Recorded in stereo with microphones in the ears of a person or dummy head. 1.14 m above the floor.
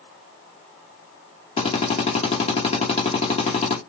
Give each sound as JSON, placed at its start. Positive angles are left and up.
{"t": 1.6, "sound": "a drill", "side_deg": 35, "distance_m": 1.0}